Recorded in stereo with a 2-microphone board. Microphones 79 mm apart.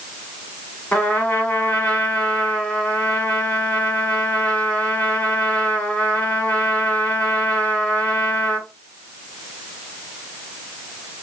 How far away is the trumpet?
About 1.0 m.